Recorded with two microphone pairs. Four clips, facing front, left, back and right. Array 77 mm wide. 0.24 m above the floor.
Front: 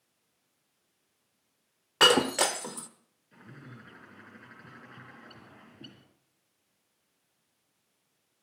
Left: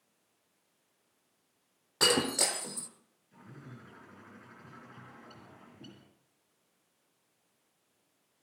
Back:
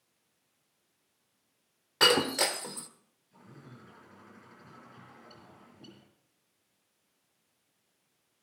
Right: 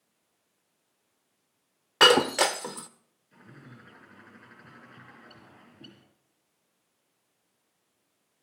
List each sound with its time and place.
2.0 s breaking glass: 65° right, 1.1 m
3.3 s a bird: 30° right, 6 m